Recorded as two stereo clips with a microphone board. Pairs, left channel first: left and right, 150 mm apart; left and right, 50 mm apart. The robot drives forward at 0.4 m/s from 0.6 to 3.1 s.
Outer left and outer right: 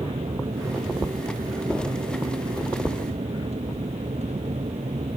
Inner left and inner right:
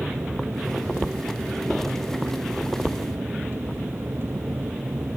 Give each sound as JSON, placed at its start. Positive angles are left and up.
{"t": 0.0, "sound": "an aircraft", "side_deg": -45}